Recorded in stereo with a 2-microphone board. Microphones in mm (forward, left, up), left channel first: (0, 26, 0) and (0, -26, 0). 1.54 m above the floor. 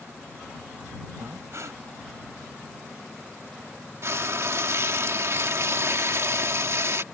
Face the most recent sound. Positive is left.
turn(degrees=-60)  # may be behind; listen again after turning